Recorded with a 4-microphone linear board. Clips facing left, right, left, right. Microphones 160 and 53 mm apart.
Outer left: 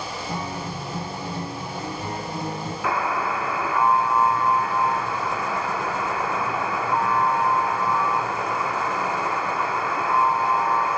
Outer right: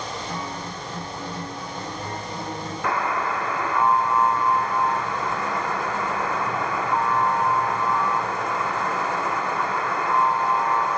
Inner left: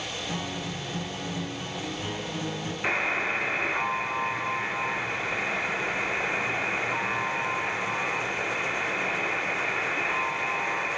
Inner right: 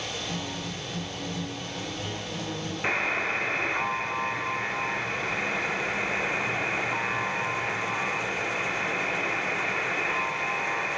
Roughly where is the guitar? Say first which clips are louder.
Outer left 2 dB, inner left 1 dB; left.